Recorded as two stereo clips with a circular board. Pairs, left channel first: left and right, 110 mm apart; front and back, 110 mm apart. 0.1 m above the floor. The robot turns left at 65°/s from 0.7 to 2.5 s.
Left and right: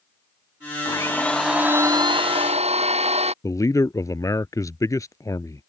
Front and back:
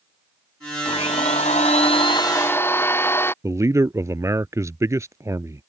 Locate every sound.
0.8 s a blender: 35° left; by 3.3 s 70° right
3.4 s a man speaking: 135° left